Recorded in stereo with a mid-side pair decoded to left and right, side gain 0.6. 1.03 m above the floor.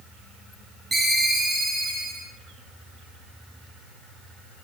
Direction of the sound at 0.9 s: 15° right.